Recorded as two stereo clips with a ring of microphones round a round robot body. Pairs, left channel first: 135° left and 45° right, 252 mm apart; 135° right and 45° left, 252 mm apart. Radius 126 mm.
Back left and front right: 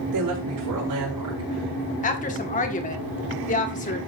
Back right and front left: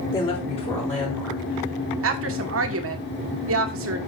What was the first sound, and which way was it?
A woman speaking, 60° right.